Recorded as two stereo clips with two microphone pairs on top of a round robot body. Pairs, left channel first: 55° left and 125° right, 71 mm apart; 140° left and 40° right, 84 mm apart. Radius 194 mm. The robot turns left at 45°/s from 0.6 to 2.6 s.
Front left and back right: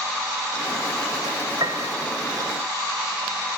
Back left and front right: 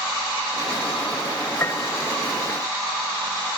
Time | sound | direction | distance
1.6 | a piano | 155° right | ?